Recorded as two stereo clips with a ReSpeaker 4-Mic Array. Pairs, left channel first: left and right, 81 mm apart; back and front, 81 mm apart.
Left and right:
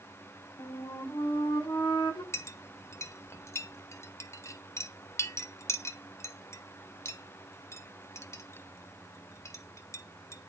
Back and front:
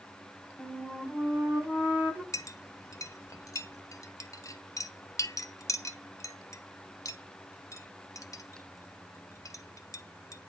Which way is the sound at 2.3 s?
140° left.